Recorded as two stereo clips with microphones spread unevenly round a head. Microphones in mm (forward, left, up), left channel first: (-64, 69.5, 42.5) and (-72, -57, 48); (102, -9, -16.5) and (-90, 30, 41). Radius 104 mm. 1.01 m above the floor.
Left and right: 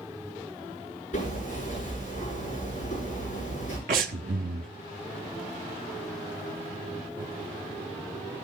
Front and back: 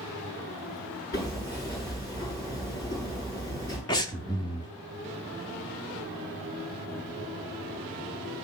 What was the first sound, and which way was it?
Hammering, 30° left.